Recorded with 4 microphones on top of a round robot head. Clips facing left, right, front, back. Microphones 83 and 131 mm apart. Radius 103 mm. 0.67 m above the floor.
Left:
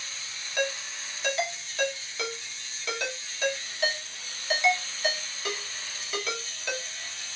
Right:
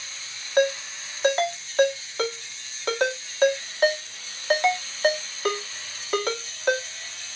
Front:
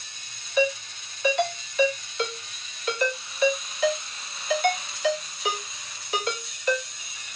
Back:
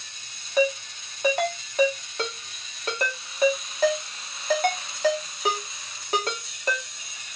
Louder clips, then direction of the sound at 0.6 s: Right 9 dB, back 1 dB; 135° right.